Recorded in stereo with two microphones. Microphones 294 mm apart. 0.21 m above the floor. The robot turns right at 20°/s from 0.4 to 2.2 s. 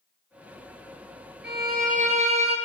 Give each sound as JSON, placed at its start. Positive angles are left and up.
{"t": 1.4, "sound": "a violin", "side_deg": -35, "distance_m": 1.7}